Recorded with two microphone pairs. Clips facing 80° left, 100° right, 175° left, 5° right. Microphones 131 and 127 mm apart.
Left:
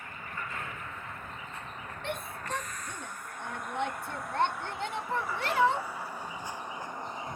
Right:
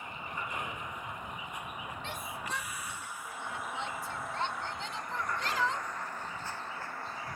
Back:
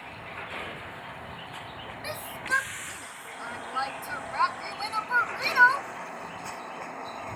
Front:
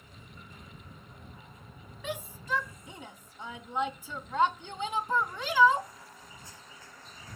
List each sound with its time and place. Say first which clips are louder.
0.0 s a vehicle: right 1 dB, back 12 dB; 175° right; by 7.4 s 145° left
2.0 s a shout: left 6 dB, front 1 dB; 75° left